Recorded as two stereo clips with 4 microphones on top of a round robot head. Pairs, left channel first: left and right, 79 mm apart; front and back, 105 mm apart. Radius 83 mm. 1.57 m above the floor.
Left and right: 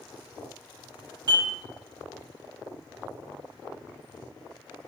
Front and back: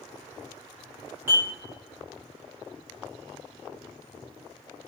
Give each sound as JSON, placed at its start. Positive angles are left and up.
{"t": 1.3, "sound": "dishes clattering", "azimuth_deg": -110, "distance_m": 0.9}